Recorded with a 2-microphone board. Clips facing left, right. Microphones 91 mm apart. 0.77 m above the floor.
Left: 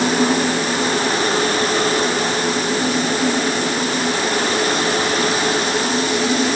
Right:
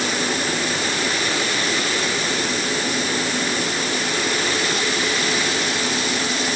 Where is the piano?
I don't hear a piano.